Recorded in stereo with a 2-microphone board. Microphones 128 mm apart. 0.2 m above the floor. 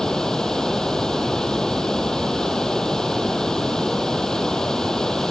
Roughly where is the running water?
Centre.